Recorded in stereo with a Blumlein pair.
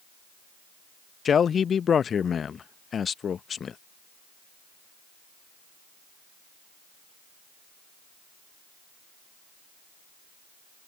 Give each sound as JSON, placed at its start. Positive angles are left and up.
{"t": 1.2, "sound": "a man speaking", "azimuth_deg": 20}